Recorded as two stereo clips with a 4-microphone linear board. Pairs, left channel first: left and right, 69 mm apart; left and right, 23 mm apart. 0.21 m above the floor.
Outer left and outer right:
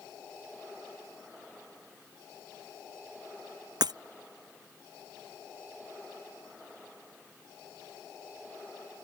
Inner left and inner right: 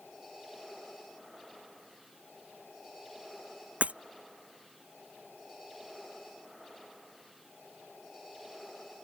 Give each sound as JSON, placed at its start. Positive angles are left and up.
{"t": 3.8, "sound": "breaking glass", "side_deg": -80}